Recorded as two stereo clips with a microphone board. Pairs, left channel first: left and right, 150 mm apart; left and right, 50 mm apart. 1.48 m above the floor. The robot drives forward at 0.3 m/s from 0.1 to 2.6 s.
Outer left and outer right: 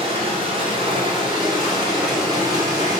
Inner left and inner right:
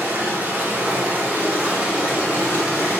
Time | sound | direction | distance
0.0 | running water | 40° right (ahead or behind) | 1.3 m